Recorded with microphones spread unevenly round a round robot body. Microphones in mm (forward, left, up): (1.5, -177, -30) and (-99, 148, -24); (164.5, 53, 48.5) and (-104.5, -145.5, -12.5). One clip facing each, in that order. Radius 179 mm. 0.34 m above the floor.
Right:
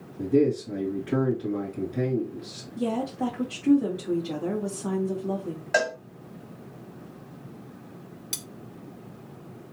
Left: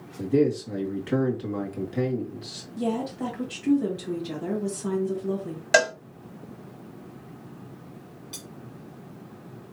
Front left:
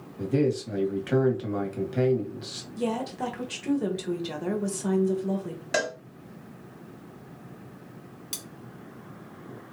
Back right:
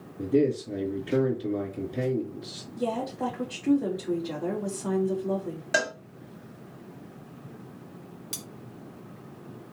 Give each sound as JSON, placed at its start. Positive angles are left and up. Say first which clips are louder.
{"t": 0.2, "sound": "a man speaking", "louder": "even, back right 1 dB", "azimuth_deg": 45, "distance_m": 2.0}
{"t": 2.8, "sound": "a woman speaking", "louder": "even, front left 1 dB", "azimuth_deg": 35, "distance_m": 1.8}
{"t": 5.7, "sound": "a cowbell", "louder": "left 4 dB, front left 2 dB", "azimuth_deg": 130, "distance_m": 1.1}
{"t": 8.3, "sound": "cutlery clinking", "louder": "even, back right 1 dB", "azimuth_deg": -55, "distance_m": 0.9}